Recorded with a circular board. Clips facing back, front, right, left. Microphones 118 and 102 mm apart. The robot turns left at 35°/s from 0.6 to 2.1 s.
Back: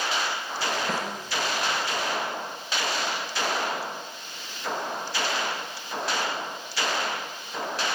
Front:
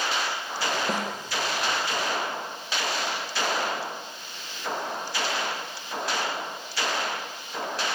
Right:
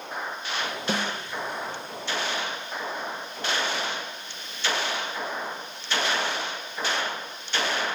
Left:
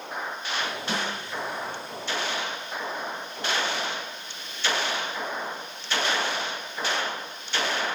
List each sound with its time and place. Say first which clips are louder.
0.9 s a snare drum: front 1 dB, right 3 dB; 70° right, 0.6 m; by 1.1 s 75° right, 0.6 m